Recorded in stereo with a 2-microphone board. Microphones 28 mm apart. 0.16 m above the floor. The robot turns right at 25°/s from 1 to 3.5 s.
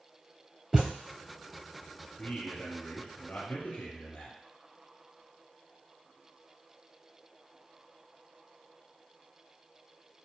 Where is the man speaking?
50° left, 2 m; by 4.3 s 80° left, 2 m.